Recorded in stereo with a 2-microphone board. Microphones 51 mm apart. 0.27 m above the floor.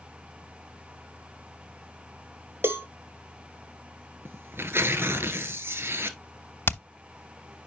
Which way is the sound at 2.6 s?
50° right (ahead or behind).